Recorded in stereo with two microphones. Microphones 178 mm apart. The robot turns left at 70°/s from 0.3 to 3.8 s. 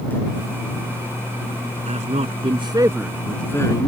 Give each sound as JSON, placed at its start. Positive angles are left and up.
{"t": 1.9, "sound": "a man speaking", "side_deg": -40}